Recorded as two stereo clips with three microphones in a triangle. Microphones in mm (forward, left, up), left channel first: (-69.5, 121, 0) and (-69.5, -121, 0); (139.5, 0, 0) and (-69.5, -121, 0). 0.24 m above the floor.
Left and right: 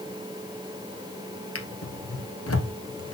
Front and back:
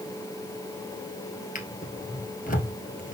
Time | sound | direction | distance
1.6 | a drawer | 85° left | 1.6 m